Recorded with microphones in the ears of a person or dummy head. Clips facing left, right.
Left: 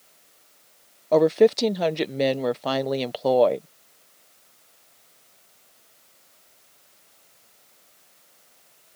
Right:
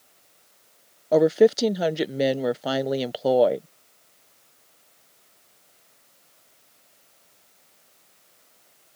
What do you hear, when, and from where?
1.1 s a woman speaking: 5° right (ahead or behind)